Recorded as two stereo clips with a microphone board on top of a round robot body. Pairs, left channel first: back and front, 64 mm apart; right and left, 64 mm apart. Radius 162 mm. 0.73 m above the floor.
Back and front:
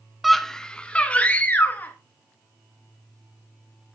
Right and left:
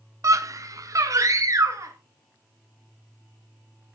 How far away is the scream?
About 0.6 m.